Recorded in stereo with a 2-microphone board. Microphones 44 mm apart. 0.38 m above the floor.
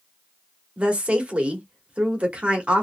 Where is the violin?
I don't hear a violin.